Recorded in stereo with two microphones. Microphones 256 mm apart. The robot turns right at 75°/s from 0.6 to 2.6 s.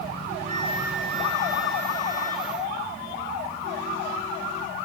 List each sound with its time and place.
0.4 s a flute: 30° right, 1.5 m; by 2.5 s 110° left, 1.5 m